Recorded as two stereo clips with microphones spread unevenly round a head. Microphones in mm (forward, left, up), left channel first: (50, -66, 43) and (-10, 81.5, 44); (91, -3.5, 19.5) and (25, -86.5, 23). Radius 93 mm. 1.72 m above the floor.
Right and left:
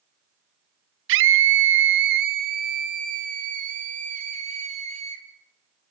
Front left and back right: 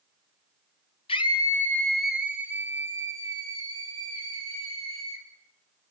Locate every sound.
1.1 s a scream: 115° left, 0.9 m; by 5.2 s 170° left, 3 m